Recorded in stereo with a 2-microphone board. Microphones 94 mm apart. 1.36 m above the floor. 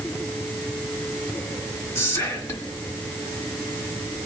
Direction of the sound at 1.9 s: 35° left (ahead or behind).